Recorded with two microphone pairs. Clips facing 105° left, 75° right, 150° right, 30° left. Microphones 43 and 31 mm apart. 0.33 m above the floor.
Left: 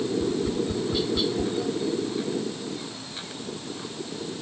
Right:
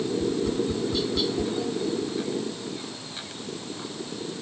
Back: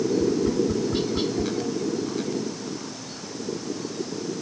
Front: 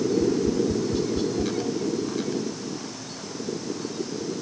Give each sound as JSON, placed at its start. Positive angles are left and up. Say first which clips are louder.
{"t": 0.2, "sound": "tapping", "louder": "even, even", "azimuth_deg": -175}